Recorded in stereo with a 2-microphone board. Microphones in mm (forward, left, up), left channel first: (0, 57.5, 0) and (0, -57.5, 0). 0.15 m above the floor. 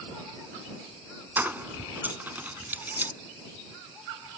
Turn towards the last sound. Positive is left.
turn(degrees=-15)  # may be behind; listen again after turning